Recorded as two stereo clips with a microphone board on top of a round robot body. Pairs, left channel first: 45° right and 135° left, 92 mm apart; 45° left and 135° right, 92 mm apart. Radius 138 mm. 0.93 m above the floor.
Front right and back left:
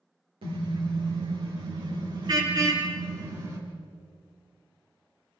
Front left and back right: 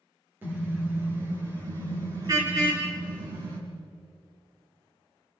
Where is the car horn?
155° left, 8 m; by 3.6 s 165° right, 5.5 m.